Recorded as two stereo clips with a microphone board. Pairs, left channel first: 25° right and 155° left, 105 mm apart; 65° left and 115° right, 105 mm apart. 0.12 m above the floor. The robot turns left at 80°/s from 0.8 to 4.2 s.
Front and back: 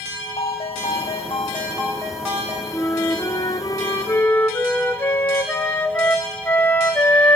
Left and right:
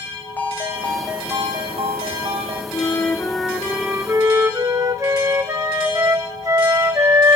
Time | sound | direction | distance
0.4 | a ringtone | 5° right | 4 m
2.7 | a flute | 35° left | 1.7 m